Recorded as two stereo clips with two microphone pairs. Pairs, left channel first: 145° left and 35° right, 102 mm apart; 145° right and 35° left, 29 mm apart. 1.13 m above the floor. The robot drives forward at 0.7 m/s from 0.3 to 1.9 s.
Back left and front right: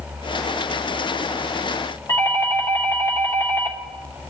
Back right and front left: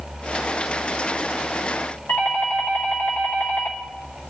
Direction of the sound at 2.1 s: 155° right.